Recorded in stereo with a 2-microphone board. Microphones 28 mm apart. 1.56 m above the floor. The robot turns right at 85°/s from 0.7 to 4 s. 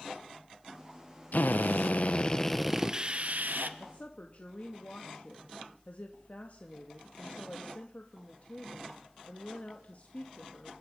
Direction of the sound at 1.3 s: 70° left.